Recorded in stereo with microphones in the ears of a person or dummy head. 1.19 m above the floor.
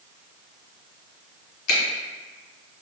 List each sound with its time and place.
1.7 s a finger snap: 65° left (ahead or behind), 1.0 m